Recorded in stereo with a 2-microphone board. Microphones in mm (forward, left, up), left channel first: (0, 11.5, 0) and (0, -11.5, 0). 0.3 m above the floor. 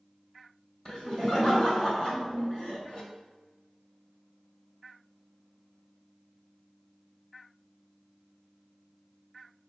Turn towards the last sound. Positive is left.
turn(degrees=30)  # may be behind; listen again after turning